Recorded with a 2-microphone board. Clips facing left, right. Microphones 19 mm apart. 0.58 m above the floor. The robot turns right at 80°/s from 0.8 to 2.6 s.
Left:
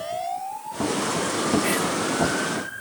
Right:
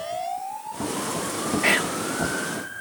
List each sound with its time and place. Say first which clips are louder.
1.6 s whispering: right 2 dB; 40° right (ahead or behind); by 2.0 s 30° right (ahead or behind)